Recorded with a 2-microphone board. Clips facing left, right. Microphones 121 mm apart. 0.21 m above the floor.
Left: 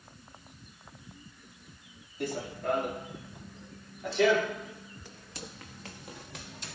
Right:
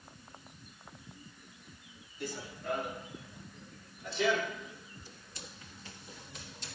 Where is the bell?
No bell in this recording.